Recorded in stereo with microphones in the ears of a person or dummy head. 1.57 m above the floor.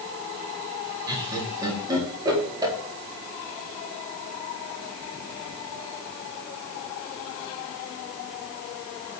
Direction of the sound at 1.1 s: 20° right (ahead or behind).